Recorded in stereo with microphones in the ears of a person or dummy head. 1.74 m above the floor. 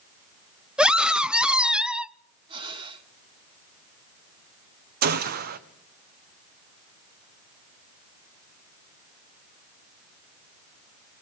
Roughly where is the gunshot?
Right.